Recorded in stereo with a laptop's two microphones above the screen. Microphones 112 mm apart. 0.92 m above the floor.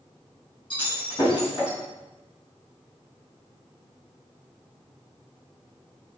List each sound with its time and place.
0.7 s breaking glass: 50° left (ahead or behind), 4.5 m